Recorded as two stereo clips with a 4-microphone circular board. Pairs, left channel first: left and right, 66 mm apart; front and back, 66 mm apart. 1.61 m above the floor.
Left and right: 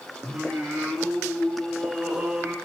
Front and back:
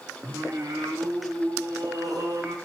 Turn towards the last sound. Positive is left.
turn(degrees=-165)